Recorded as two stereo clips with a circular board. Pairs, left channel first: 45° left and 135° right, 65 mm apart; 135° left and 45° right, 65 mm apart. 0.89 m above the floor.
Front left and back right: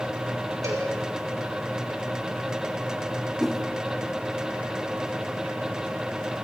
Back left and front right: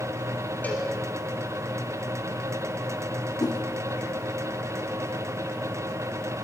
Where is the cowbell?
160° right, 7 m.